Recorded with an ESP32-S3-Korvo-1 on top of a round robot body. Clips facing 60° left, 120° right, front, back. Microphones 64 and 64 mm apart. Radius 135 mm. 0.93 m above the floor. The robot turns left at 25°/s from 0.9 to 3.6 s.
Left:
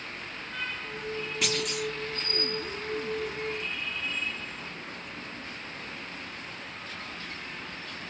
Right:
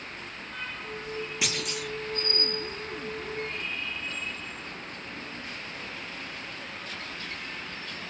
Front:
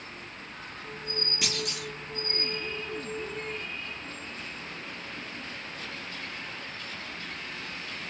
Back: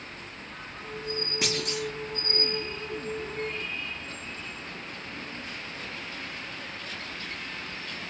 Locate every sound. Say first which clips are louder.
1.4 s a clunk: left 5 dB, back 5 dB; 165° left, 0.8 m; by 1.9 s 150° left, 0.8 m